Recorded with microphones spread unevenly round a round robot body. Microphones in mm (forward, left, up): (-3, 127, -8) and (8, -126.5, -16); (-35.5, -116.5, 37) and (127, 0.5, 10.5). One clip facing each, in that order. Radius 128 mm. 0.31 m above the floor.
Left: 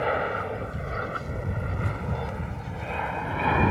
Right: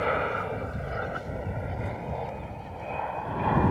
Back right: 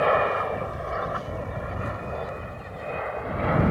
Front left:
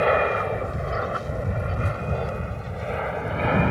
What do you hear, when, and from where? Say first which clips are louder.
0.0 s an aircraft: left 1 dB, front left 2 dB; 10° right; by 3.7 s 70° left